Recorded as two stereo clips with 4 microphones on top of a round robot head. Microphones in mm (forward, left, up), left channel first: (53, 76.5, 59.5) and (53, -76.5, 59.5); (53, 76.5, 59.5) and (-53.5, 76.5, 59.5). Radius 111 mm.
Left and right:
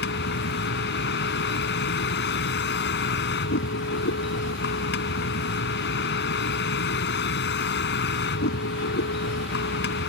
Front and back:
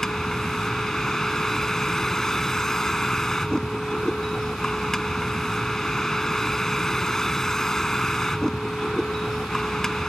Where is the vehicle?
85° left.